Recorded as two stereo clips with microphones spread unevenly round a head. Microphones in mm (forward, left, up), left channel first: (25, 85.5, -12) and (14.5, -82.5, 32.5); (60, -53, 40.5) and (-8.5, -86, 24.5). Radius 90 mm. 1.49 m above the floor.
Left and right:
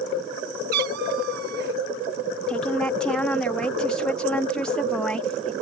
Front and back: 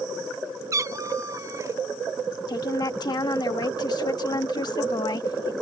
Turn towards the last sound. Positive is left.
turn(degrees=0)